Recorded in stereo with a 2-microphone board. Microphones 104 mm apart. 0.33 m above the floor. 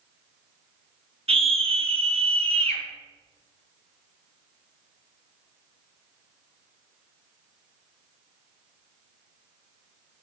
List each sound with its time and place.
1.3 s a scream: 70° right (ahead or behind), 4 m; by 2.8 s 75° right (ahead or behind), 3 m